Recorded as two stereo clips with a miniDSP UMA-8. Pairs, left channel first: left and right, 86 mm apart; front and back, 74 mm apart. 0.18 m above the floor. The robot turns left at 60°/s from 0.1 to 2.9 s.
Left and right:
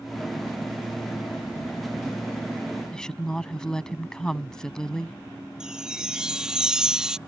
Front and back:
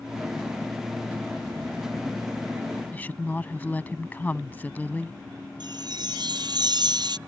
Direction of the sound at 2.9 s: 20° left.